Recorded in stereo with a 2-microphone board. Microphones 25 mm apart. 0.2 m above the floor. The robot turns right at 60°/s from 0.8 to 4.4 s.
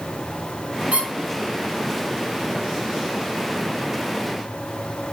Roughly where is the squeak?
Right.